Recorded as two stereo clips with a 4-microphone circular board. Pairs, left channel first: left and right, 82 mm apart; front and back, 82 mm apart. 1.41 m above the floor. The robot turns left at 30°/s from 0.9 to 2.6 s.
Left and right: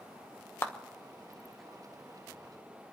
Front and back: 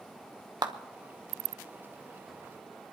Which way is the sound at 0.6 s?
150° left.